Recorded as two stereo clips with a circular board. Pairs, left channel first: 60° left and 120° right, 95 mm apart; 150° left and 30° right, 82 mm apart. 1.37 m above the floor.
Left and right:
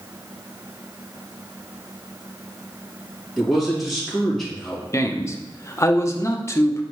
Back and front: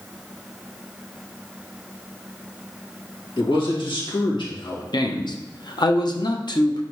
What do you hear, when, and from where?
3.4 s a man speaking: 150° left, 2.5 m
4.9 s a man speaking: 120° left, 0.8 m